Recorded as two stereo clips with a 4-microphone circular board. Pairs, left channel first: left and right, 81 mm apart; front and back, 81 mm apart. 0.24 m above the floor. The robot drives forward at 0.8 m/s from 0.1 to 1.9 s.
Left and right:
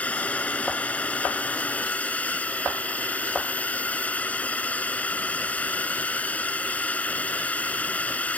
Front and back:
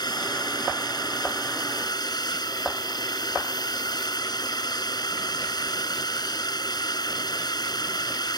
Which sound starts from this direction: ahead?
A drone, at 0.0 s.